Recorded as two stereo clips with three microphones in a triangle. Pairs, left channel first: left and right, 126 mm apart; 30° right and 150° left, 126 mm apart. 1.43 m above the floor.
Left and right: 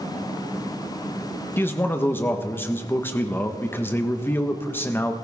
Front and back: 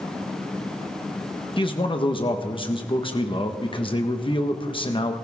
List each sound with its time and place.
1.6 s a man speaking: 15° left, 1.4 m